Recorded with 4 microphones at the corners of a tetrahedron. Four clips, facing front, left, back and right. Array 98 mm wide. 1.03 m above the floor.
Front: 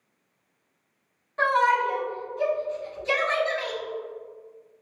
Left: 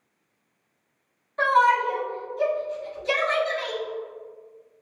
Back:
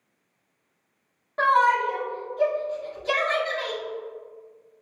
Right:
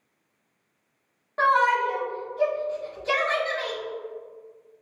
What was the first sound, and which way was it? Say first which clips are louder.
A shout: left 1 dB, back 2 dB; 130° right.